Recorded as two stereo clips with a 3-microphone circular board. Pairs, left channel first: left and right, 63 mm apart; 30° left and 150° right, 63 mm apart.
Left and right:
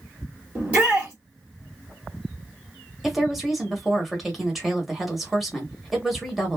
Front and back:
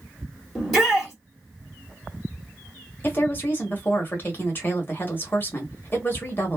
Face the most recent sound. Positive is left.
turn(degrees=-5)